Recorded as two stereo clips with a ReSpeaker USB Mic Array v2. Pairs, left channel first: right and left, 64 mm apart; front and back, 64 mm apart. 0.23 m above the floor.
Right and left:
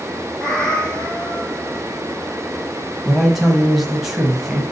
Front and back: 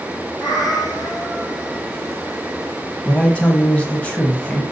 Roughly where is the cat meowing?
Ahead.